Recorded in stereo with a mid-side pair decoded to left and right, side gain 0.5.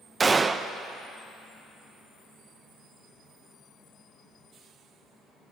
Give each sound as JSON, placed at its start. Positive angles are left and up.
{"t": 0.2, "sound": "a gunshot", "azimuth_deg": -25, "distance_m": 0.7}